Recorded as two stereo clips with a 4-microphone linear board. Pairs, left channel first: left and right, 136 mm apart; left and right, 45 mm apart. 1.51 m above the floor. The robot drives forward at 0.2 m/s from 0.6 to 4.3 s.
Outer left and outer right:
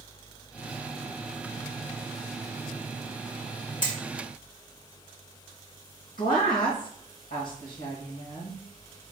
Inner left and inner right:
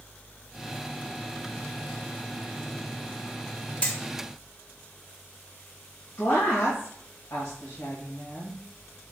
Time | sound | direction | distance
3.8 | hammering | 30° left (ahead or behind) | 1.7 m
6.2 | a woman speaking | 70° left (ahead or behind) | 1.8 m